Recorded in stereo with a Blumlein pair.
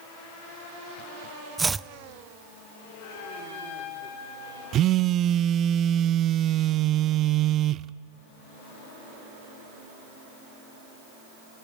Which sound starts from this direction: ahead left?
A trumpet, at 3.0 s.